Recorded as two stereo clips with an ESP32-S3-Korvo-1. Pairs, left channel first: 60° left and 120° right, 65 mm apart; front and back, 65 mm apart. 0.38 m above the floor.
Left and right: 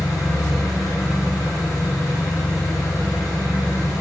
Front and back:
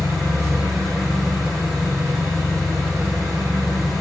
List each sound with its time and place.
0.0 s an engine running: 90° left, 5 m